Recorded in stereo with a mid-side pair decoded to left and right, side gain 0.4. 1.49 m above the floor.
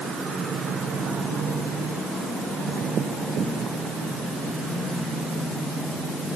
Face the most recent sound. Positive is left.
No sound to turn to.